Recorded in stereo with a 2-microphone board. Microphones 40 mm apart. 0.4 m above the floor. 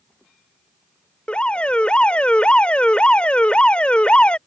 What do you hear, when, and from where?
1.3 s an alarm: 30° left (ahead or behind)